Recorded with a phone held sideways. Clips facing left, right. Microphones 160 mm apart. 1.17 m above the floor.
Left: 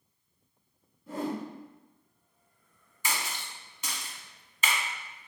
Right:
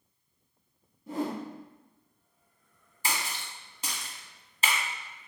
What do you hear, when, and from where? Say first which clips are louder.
1.1 s a whoosh: right 1 dB; 20° right (ahead or behind), 1.9 m
3.0 s a splash: right 1 dB; 35° right (ahead or behind), 0.9 m